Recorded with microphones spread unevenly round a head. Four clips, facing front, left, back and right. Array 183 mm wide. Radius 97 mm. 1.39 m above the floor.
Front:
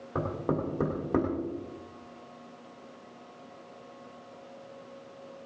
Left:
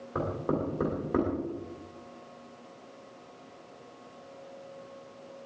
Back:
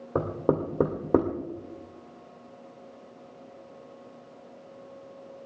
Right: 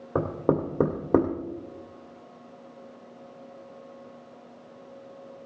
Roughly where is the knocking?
Behind right.